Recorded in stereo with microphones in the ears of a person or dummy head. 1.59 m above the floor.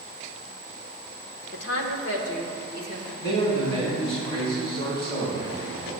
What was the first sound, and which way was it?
A woman speaking, 65° left (ahead or behind).